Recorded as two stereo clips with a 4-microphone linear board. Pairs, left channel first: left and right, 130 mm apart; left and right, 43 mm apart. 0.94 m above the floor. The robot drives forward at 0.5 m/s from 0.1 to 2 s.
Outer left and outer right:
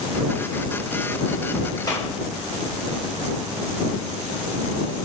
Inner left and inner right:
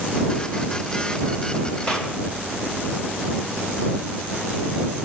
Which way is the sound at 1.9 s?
30° left (ahead or behind).